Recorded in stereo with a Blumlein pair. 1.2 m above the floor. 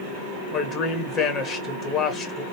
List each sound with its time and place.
0.5 s a man speaking: 30° left, 1.1 m